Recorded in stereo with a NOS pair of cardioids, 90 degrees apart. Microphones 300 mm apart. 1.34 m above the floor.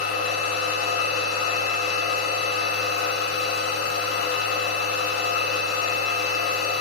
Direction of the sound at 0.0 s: 50° left.